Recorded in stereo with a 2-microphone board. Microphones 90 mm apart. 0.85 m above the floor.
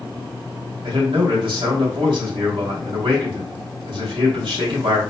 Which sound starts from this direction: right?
A man speaking, at 0.8 s.